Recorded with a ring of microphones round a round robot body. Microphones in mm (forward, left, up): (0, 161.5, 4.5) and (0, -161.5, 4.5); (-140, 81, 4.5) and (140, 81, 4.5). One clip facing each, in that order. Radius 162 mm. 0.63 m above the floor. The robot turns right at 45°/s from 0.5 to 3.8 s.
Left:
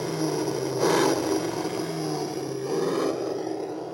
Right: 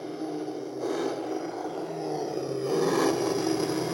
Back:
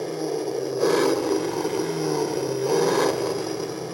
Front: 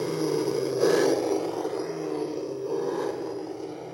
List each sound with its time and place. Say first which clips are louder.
0.0 s an engine running: left 6 dB, front 1 dB; 75° left, 0.7 m; by 3.9 s 135° right, 0.7 m